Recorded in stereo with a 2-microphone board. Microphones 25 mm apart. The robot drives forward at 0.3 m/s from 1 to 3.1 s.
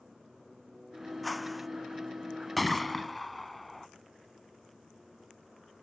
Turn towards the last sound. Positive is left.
turn(degrees=0)  # may be behind; listen again after turning